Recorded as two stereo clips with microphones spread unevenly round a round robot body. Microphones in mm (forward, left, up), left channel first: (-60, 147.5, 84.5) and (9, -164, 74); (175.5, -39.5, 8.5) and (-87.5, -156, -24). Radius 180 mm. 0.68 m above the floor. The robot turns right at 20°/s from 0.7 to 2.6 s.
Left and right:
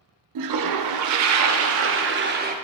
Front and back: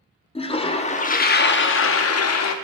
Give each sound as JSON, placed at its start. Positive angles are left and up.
{"t": 0.3, "sound": "a toilet flushing", "azimuth_deg": -50, "distance_m": 0.5}